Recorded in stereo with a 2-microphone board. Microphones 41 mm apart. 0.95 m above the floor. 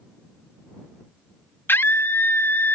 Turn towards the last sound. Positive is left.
turn(degrees=45)  # may be behind; listen again after turning